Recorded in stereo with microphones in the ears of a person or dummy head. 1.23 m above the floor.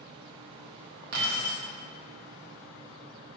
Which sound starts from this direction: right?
Keys jangling, at 1.1 s.